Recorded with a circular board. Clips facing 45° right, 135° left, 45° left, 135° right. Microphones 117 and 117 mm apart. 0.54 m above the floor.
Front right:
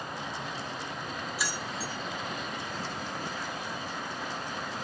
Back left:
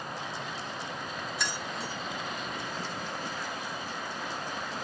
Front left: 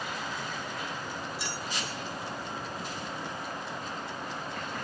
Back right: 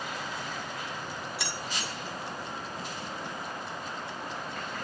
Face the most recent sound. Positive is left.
turn(degrees=-130)